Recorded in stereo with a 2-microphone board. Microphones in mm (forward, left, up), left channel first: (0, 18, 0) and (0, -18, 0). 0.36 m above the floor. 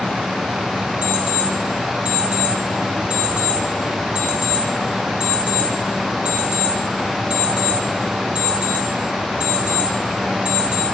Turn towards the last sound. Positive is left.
turn(degrees=-35)  # may be behind; listen again after turning